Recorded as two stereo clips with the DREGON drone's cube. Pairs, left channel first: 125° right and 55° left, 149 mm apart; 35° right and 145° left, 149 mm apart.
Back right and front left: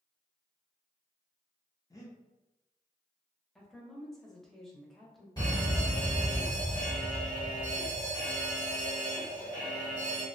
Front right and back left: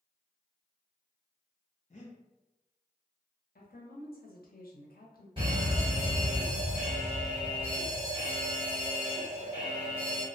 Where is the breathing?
60° right, 0.5 m.